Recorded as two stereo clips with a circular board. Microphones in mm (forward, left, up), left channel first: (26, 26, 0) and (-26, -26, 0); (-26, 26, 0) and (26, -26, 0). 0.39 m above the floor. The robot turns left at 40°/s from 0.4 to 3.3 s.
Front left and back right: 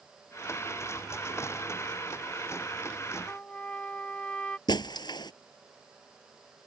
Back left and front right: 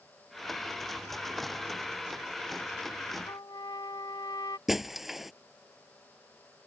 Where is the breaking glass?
40° left.